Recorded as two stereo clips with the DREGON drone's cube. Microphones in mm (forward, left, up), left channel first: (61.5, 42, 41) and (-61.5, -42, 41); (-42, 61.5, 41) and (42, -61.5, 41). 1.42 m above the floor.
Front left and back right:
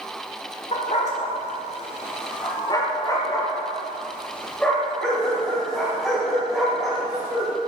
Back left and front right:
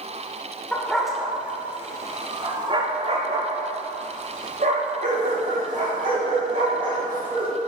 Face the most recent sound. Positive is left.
turn(degrees=-60)